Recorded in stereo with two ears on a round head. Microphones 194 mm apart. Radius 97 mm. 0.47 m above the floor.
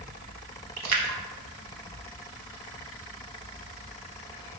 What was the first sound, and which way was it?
A splash, 85° right.